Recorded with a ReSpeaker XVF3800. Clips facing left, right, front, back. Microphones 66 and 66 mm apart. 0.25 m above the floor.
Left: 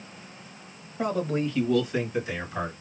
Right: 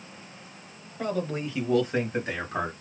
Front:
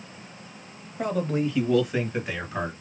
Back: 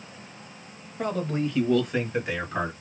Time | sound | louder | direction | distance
1.0 | a man speaking | left 3 dB, front 2 dB | 75° left | 1.1 m